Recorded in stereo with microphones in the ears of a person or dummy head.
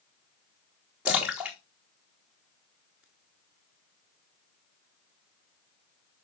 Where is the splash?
10° right (ahead or behind), 1.2 m.